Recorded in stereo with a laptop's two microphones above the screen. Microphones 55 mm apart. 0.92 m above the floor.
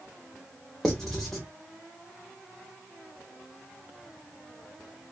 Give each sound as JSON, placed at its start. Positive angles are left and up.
{"t": 0.8, "sound": "writing", "side_deg": 10, "distance_m": 0.8}